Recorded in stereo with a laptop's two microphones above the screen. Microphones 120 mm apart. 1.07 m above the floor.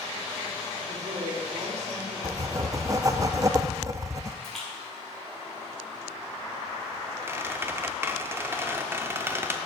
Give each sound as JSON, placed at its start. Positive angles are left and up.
{"t": 0.9, "sound": "a woman speaking", "side_deg": -65, "distance_m": 2.5}
{"t": 2.2, "sound": "writing", "side_deg": -25, "distance_m": 0.5}
{"t": 4.4, "sound": "a splash", "side_deg": 5, "distance_m": 3.5}
{"t": 7.3, "sound": "a squeak", "side_deg": -20, "distance_m": 0.7}